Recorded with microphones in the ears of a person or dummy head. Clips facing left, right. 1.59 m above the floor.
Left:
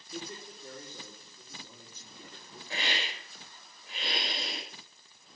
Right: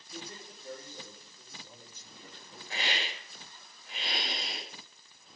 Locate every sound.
0.1 s a man speaking: 80° left, 5.5 m
2.7 s a hiss: 70° left (ahead or behind), 7 m